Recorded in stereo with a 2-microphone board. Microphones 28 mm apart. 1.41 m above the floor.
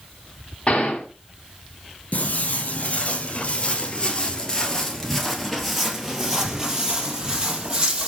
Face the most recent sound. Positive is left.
turn(degrees=-35)  # may be behind; listen again after turning